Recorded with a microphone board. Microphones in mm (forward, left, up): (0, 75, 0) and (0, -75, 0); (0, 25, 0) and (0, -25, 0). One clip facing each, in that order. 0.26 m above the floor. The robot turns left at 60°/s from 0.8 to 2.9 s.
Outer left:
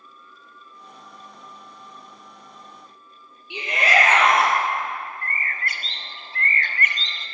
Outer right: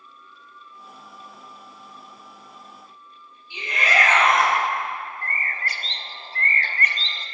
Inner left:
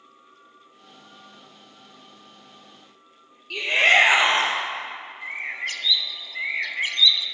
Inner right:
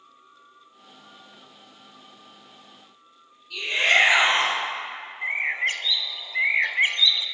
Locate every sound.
3.5 s a shout: 75° left (ahead or behind), 5 m
5.2 s a bird: 35° right (ahead or behind), 0.7 m